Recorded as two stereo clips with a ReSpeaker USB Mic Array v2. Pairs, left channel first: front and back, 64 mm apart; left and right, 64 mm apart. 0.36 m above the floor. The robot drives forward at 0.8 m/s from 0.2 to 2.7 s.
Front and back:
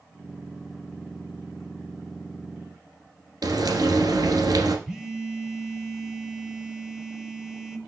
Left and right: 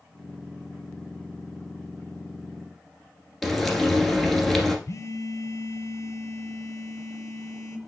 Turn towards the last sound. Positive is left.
turn(degrees=100)